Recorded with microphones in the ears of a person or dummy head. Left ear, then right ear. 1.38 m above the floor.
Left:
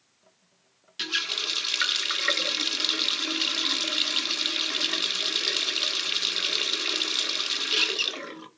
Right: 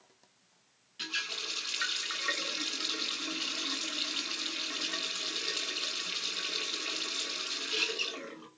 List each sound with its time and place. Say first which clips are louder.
1.0 s a running tap: left 8 dB; 35° left (ahead or behind), 0.7 m